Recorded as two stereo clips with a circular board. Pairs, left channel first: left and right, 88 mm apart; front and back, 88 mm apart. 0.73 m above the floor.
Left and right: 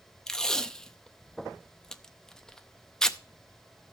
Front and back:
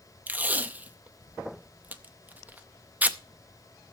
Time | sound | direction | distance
0.3 | tape being pulled | 155° left | 0.6 m